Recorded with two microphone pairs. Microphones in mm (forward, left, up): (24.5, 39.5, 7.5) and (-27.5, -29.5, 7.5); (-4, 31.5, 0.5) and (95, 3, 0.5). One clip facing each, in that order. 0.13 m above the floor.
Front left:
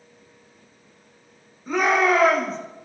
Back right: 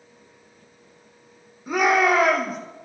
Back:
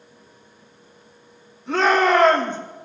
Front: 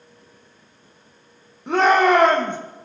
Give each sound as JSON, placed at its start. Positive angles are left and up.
{"t": 1.7, "sound": "a shout", "azimuth_deg": -45, "distance_m": 6.5}